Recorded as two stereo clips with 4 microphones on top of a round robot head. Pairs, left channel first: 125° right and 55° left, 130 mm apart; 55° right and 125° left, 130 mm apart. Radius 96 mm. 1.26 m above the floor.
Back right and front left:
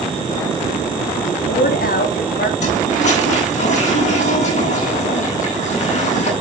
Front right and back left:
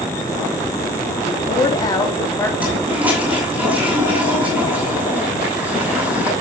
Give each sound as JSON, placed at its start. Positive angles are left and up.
{"t": 1.2, "sound": "a woman speaking", "azimuth_deg": -105, "distance_m": 3.0}
{"t": 2.6, "sound": "a toilet flushing", "azimuth_deg": -160, "distance_m": 7.5}